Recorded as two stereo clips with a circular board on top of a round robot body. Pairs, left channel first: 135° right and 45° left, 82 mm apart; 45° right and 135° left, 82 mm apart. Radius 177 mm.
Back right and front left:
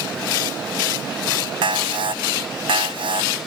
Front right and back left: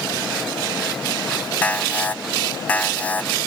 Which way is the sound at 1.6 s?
30° left.